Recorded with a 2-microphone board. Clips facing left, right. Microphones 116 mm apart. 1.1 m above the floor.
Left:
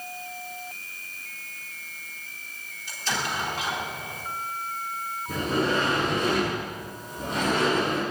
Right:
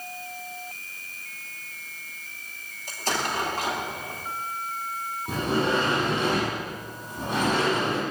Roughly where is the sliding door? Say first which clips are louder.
Right 1 dB; right.